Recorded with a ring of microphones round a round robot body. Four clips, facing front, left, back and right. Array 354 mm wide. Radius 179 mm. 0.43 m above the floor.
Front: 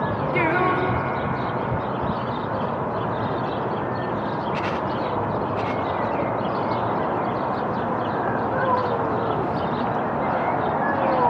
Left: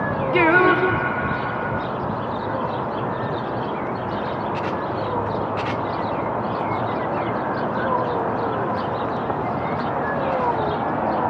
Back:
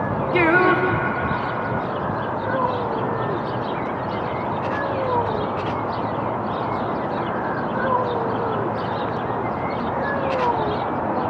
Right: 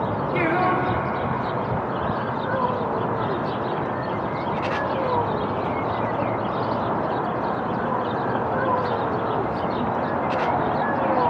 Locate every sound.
0.3 s singing: 115° left, 0.8 m